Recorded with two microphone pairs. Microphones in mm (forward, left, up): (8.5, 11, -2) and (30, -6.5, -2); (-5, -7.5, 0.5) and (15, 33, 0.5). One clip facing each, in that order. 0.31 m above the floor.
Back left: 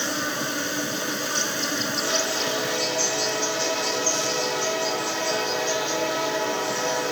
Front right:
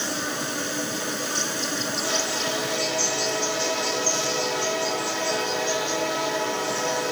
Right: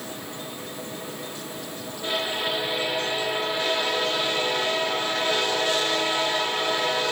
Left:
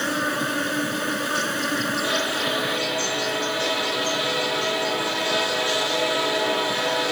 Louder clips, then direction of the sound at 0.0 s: Back left 1 dB, left 12 dB; 60° left.